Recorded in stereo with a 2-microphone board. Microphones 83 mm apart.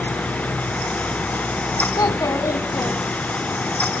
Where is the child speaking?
45° left (ahead or behind), 1.6 m; by 3.6 s 40° left (ahead or behind), 2.5 m.